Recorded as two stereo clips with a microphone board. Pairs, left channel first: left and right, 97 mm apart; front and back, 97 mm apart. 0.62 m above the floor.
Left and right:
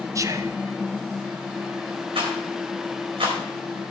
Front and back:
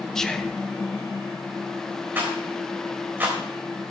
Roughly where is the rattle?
Right.